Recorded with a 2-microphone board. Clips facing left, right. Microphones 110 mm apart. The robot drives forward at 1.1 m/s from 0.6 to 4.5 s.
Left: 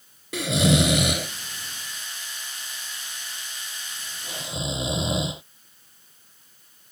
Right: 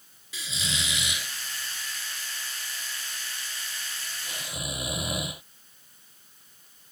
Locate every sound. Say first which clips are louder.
0.3 s snoring: left 16 dB; 65° left (ahead or behind); by 5.4 s 25° left (ahead or behind)